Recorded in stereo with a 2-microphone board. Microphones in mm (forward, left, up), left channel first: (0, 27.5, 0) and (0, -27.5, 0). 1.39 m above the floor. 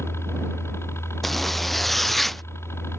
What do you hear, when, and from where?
0.0 s a helicopter: 50° left (ahead or behind)
1.2 s a zipper: 5° left (ahead or behind)